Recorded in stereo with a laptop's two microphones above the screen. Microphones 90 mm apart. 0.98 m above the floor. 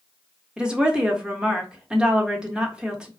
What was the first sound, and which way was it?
A woman speaking, 10° right (ahead or behind).